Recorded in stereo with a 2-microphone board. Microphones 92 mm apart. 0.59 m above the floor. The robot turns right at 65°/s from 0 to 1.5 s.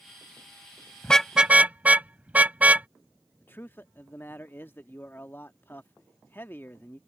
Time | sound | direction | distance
1.0 | a car horn | 15° left (ahead or behind) | ?
3.4 | a man speaking | 25° left (ahead or behind) | ?